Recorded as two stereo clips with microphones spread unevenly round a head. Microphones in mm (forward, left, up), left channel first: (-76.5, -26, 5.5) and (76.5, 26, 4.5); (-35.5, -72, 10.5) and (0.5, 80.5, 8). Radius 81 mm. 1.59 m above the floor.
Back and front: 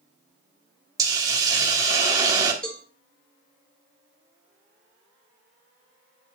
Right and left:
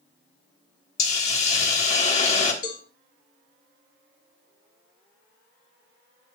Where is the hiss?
50° right, 1.5 m.